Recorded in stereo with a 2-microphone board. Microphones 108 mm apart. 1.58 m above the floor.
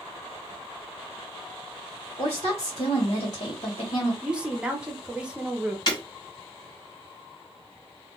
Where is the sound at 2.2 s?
55° left (ahead or behind), 1.2 m.